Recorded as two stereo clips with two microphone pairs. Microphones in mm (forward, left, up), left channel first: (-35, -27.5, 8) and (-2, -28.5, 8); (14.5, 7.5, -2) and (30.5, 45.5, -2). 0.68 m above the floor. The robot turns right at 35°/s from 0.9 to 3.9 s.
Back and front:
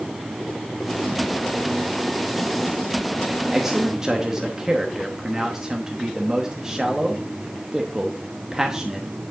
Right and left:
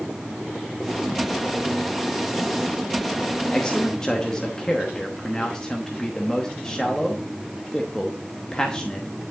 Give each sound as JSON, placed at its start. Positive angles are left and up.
{"t": 3.5, "sound": "a man speaking", "azimuth_deg": -70, "distance_m": 1.0}